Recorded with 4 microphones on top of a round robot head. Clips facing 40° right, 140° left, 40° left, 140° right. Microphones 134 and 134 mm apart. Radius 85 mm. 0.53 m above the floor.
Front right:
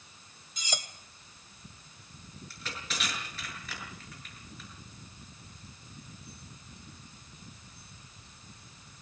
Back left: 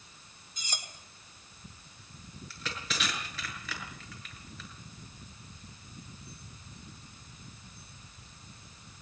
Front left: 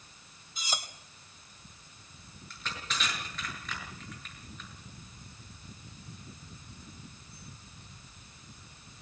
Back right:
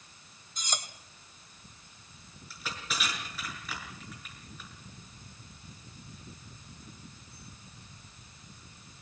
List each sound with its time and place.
0.6 s cutlery clinking: 45° right, 1.8 m
2.5 s crushing: 135° left, 8 m